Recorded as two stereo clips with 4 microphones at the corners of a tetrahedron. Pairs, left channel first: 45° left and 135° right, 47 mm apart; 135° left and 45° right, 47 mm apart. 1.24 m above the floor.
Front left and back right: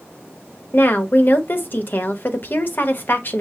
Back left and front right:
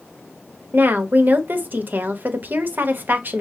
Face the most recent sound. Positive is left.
turn(degrees=0)